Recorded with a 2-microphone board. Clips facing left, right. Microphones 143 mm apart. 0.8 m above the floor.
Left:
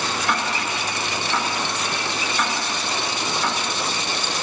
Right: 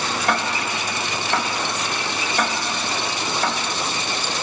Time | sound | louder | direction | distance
0.3 | ticking | right 3 dB | 55° right (ahead or behind) | 2.5 m